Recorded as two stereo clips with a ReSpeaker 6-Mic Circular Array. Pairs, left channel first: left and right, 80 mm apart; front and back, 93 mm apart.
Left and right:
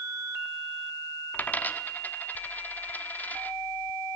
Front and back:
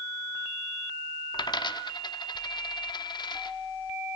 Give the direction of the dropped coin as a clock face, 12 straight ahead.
11 o'clock.